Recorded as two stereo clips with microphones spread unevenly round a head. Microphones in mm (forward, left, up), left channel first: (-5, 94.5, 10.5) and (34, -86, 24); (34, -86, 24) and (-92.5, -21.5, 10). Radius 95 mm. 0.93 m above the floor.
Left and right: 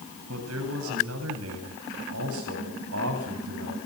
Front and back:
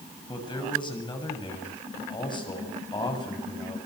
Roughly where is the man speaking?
Right.